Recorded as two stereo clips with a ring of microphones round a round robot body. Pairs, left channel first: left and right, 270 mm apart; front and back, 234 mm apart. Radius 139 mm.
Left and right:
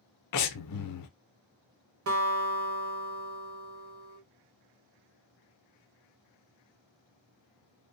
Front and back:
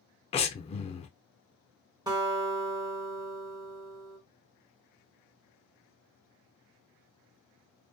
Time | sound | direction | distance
0.3 | breathing | 65° left | 0.5 m
2.1 | a guitar | 110° right | 1.2 m